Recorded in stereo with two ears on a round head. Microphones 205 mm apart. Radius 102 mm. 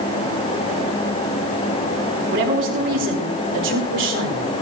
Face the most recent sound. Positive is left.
turn(degrees=-50)  # may be behind; listen again after turning